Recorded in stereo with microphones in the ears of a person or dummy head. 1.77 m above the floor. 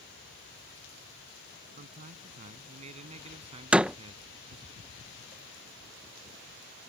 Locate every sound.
1.8 s a man speaking: 40° right (ahead or behind); by 4.7 s 25° right (ahead or behind)
3.7 s a door slam: 10° right (ahead or behind)